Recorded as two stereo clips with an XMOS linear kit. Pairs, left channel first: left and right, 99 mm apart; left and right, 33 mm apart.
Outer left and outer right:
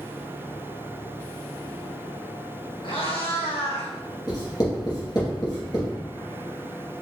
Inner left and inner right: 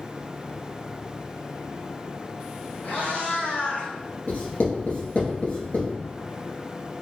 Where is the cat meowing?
65° left (ahead or behind), 1.8 m; by 3.9 s 85° left, 1.6 m.